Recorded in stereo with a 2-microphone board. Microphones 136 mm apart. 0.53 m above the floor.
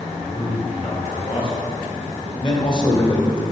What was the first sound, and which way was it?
A man speaking, 60° left (ahead or behind).